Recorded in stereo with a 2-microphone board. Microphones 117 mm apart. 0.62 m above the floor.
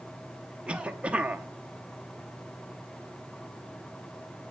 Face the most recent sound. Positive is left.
turn(degrees=-10)  # may be behind; listen again after turning